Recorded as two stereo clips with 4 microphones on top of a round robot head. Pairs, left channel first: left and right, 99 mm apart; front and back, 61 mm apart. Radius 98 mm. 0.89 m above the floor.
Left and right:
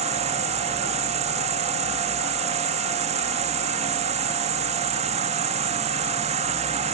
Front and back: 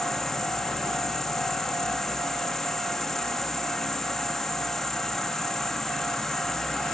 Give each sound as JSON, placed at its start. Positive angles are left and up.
{"t": 0.0, "sound": "an insect", "azimuth_deg": -90}